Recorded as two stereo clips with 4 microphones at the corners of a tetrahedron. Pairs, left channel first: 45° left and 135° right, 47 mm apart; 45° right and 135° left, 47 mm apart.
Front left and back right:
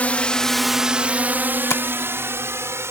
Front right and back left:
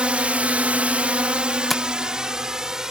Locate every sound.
0.0 s a drone: 85° left; by 2.9 s 145° right
1.7 s tapping: 40° left